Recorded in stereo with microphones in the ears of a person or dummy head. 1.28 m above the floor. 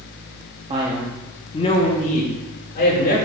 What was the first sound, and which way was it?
A man speaking, 30° right (ahead or behind).